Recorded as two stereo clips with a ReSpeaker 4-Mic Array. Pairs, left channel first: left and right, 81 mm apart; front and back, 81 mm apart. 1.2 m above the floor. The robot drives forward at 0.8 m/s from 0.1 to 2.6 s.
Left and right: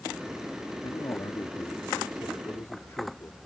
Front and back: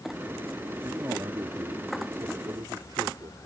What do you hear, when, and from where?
0.8 s a man speaking: 125° left; by 3.4 s 145° left